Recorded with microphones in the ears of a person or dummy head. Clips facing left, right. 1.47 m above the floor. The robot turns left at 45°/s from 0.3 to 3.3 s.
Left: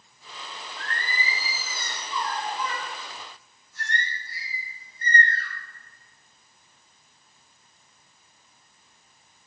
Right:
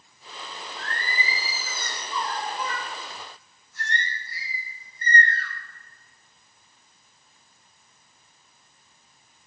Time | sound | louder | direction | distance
0.8 | singing | right 1 dB | 55° left | 2.5 m